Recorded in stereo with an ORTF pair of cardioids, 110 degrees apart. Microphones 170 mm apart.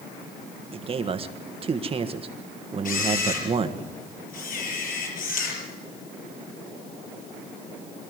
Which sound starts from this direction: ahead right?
A man speaking, at 0.7 s.